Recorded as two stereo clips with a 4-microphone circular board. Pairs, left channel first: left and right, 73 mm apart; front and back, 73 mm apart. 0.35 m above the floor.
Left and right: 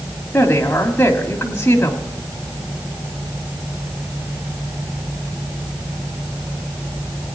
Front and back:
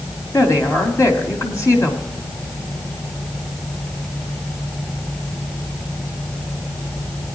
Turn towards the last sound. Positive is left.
turn(degrees=35)